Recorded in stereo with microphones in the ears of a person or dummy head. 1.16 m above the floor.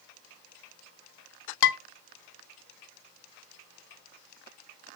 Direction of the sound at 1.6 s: 70° left (ahead or behind).